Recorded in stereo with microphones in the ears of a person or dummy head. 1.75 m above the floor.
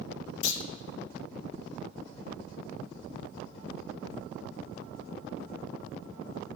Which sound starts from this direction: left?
A clunk, at 0.4 s.